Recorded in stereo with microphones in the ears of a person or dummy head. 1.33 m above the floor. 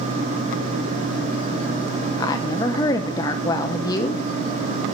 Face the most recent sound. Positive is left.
turn(degrees=20)  # may be behind; listen again after turning